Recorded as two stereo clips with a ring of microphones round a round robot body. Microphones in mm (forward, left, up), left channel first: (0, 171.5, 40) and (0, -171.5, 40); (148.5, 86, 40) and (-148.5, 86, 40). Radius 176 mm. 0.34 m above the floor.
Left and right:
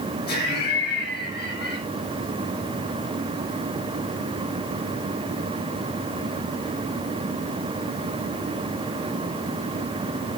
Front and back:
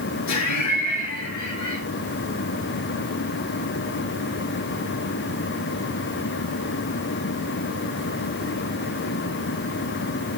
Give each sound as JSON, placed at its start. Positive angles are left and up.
{"t": 0.3, "sound": "laughter", "azimuth_deg": 25, "distance_m": 5.5}